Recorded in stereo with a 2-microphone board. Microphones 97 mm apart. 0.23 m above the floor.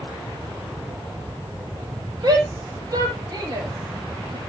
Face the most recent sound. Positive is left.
turn(degrees=-45)  # may be behind; listen again after turning